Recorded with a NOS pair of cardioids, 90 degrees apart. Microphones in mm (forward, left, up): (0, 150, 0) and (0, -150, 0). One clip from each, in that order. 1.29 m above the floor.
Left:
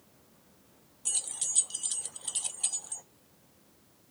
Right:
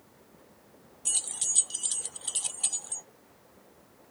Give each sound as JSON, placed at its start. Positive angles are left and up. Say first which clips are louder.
{"t": 1.1, "sound": "keys jangling", "louder": "right 3 dB", "azimuth_deg": -10, "distance_m": 0.5}